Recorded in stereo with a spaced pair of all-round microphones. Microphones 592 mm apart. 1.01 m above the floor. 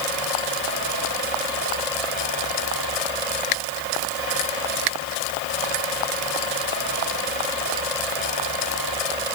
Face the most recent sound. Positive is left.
No sound to turn to.